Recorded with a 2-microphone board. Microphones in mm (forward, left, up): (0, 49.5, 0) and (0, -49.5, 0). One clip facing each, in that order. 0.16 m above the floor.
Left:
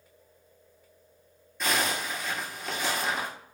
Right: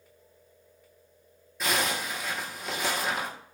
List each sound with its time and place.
1.6 s a zipper: centre (ahead or behind), 0.8 m